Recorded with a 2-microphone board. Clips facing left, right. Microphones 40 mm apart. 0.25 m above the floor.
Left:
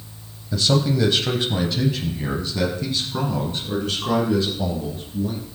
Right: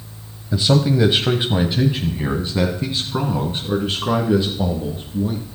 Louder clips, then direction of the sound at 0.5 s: Right 3 dB; 20° right (ahead or behind).